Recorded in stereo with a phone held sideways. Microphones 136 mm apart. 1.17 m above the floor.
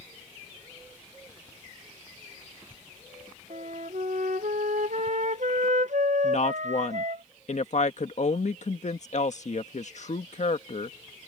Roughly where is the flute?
Right.